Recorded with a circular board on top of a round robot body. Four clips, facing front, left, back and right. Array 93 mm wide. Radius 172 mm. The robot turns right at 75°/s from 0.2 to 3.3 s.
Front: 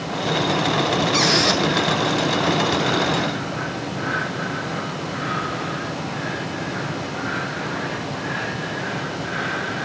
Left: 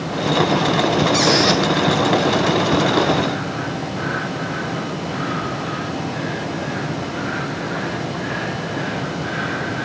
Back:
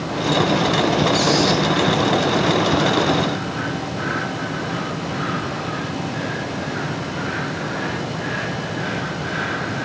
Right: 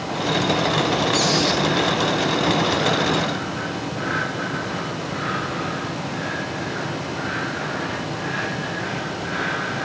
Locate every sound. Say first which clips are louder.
1.1 s a squeak: left 4 dB, back 2 dB; 30° left, 1.5 m; by 1.6 s 70° left, 1.5 m